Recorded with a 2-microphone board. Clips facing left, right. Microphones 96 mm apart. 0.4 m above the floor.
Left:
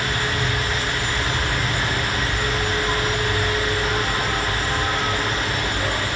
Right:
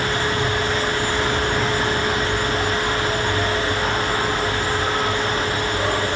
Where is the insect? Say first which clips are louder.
Right 3 dB; 70° right (ahead or behind), 2.5 m.